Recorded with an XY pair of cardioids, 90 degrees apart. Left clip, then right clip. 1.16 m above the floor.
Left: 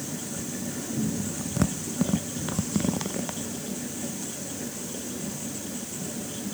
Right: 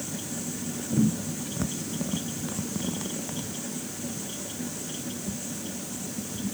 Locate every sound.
Only background noise.